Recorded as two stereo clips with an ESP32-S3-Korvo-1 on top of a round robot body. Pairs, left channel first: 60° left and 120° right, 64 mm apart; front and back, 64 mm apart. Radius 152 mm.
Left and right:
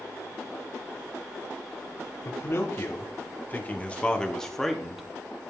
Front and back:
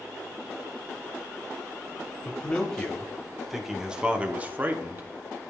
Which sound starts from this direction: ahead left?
A man speaking, at 2.2 s.